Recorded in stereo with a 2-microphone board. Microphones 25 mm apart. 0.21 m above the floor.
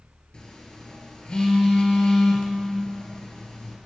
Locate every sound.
0.3 s a phone buzzing: 35° left (ahead or behind), 2.5 m